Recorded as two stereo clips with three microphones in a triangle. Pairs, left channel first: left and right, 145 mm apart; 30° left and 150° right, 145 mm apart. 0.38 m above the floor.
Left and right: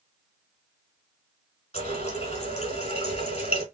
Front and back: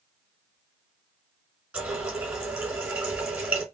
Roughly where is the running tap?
Behind left.